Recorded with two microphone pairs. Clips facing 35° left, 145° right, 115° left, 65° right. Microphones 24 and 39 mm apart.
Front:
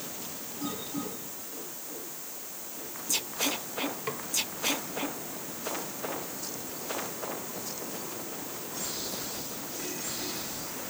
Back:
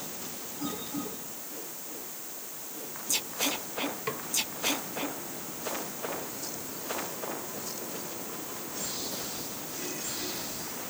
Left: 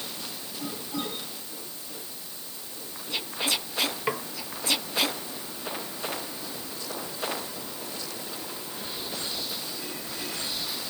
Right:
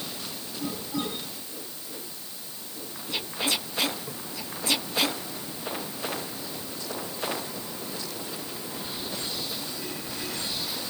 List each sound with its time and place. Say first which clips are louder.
4.1 s a snare drum: back 1 dB, left 10 dB; 125° left